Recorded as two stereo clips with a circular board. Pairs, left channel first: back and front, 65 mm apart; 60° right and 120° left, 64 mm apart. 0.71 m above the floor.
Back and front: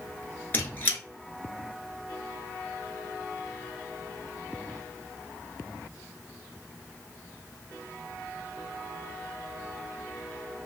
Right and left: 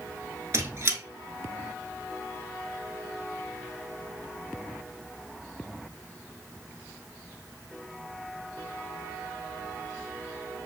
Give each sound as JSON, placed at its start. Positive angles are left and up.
{"t": 0.5, "sound": "a squeak", "azimuth_deg": 140, "distance_m": 0.9}